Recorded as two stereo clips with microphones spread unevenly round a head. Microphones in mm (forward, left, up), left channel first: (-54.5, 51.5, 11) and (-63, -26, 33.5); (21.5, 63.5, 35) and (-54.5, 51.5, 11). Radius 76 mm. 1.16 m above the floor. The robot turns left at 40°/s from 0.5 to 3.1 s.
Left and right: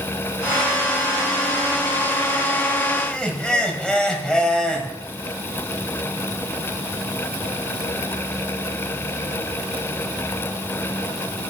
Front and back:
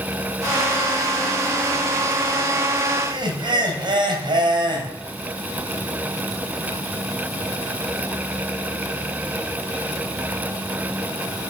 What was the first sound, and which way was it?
Laughter, 170° left.